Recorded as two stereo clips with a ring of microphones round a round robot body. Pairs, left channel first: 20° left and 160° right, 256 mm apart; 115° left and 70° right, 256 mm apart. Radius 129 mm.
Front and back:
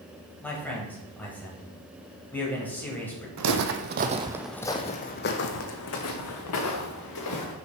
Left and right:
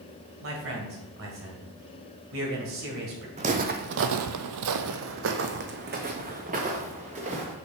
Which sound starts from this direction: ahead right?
A man speaking, at 0.4 s.